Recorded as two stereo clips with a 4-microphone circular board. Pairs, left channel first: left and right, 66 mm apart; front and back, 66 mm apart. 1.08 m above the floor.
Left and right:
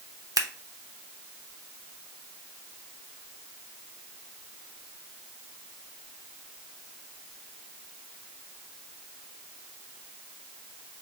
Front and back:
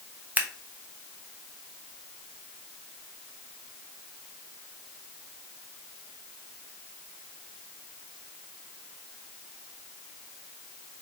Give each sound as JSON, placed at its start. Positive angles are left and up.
{"t": 0.4, "sound": "scissors", "azimuth_deg": -115, "distance_m": 0.6}